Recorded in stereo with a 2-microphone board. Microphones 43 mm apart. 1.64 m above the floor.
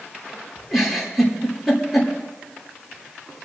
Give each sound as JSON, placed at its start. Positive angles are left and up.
{"t": 0.7, "sound": "a giggle", "side_deg": -5, "distance_m": 3.0}